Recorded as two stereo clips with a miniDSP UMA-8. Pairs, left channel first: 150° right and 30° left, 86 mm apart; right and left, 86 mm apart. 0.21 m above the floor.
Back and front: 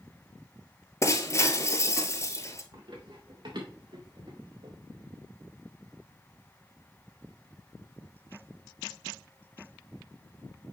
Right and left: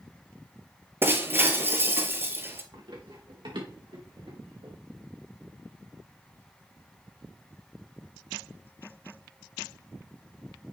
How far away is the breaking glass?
About 0.7 m.